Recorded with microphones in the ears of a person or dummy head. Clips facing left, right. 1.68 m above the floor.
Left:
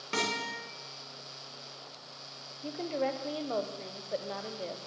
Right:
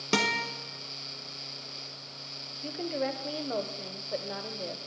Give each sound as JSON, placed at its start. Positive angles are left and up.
{"t": 0.1, "sound": "a guitar", "side_deg": -45, "distance_m": 1.1}
{"t": 2.6, "sound": "a woman speaking", "side_deg": -5, "distance_m": 0.9}